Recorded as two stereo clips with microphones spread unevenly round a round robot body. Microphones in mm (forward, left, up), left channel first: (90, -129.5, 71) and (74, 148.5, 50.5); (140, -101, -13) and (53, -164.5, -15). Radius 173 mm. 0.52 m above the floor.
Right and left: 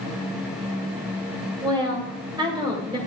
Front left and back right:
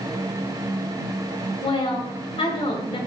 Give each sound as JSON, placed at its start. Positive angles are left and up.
{"t": 1.6, "sound": "a woman speaking", "azimuth_deg": 20, "distance_m": 2.5}